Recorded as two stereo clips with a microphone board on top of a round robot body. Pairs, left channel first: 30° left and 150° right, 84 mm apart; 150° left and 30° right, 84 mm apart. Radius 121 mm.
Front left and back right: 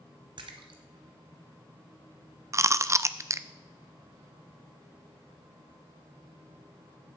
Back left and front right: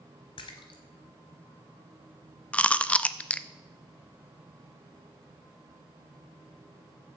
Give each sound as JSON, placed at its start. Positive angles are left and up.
{"t": 0.4, "sound": "a splash", "azimuth_deg": 180, "distance_m": 0.8}
{"t": 2.5, "sound": "chewing", "azimuth_deg": -145, "distance_m": 0.6}